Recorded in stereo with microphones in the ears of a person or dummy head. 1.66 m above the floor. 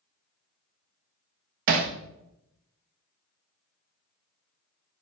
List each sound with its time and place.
1.7 s hammering: 45° right (ahead or behind), 0.5 m